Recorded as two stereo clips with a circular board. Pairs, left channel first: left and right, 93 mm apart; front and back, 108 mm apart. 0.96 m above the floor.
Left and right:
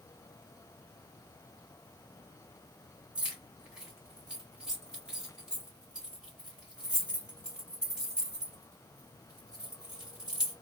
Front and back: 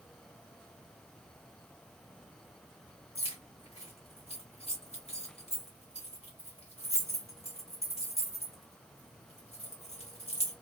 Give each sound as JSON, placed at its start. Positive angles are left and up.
{"t": 3.1, "sound": "keys jangling", "azimuth_deg": -10, "distance_m": 1.2}